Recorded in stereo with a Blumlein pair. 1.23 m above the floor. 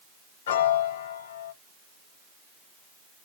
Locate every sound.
0.5 s a piano: 55° left, 0.5 m